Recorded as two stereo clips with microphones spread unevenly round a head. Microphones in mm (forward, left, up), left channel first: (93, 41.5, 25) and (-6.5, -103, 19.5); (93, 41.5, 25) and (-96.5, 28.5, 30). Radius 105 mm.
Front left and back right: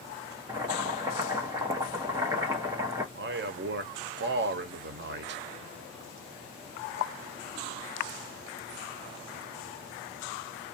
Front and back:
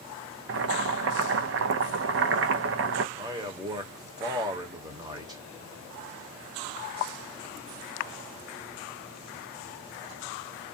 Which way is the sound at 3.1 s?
105° right.